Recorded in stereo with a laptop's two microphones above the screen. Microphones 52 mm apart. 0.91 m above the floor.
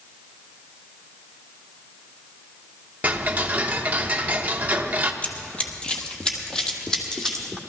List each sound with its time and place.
3.0 s ticking: 30° right (ahead or behind), 0.9 m
5.2 s running footsteps: 25° left (ahead or behind), 1.1 m; by 7.6 s 5° left (ahead or behind), 1.8 m